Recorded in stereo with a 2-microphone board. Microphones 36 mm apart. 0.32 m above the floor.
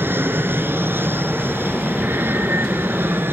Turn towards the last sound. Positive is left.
turn(degrees=-70)  # may be behind; listen again after turning